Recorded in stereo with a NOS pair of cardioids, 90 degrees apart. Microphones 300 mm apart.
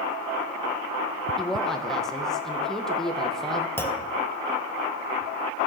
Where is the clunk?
5° left, 1.2 m.